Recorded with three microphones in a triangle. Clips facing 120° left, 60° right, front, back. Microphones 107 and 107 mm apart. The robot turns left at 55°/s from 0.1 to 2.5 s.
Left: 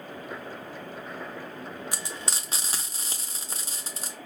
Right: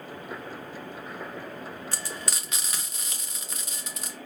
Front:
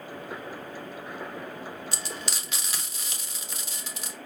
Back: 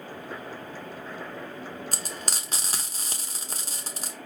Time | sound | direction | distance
1.9 | frying | 170° right | 0.9 m